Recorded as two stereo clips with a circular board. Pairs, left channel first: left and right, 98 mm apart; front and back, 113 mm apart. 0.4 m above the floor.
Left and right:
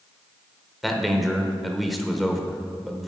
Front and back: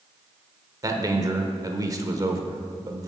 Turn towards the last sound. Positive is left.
turn(degrees=180)